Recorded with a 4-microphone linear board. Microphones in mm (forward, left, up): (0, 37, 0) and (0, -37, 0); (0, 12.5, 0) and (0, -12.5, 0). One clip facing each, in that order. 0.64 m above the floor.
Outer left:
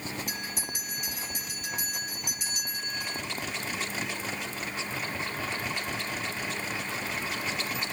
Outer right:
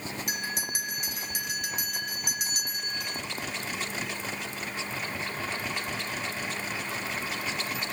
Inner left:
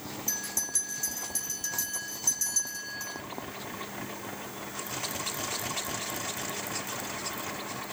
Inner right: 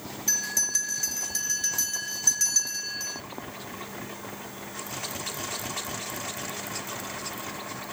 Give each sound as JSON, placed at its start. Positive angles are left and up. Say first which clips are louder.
{"t": 0.3, "sound": "a bell", "louder": "outer right 3 dB, inner right 8 dB", "side_deg": -70, "distance_m": 3.0}